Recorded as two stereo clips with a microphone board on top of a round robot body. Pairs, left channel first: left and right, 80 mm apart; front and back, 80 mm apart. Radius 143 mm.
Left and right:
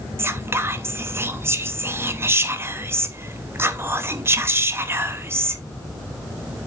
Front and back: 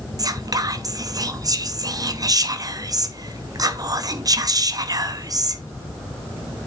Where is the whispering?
145° right, 1.0 m.